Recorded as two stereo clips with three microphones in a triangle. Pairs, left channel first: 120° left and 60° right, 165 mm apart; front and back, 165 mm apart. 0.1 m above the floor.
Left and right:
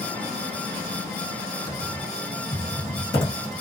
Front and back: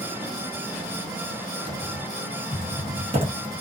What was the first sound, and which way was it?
Typing on a keyboard, 170° left.